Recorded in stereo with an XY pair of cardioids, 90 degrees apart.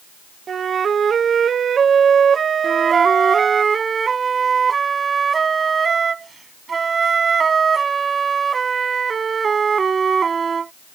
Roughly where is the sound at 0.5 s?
Ahead right.